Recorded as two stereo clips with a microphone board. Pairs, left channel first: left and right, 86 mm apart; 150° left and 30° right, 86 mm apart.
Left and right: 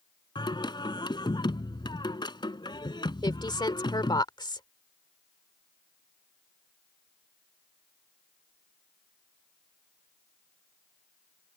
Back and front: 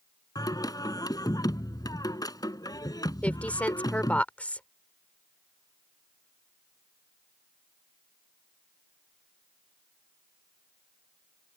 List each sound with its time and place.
0.3 s singing: 110° left
3.2 s a woman speaking: 80° left